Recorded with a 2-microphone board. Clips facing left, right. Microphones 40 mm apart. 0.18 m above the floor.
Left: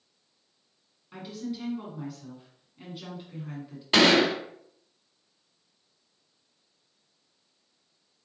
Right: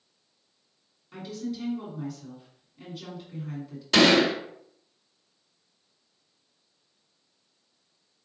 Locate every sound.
1.1 s a woman speaking: 15° left (ahead or behind), 2.0 m
3.9 s a gunshot: 25° left (ahead or behind), 1.6 m